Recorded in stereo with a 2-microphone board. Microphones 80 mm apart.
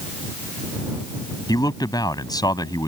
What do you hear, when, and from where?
1.5 s a man speaking: 55° left (ahead or behind)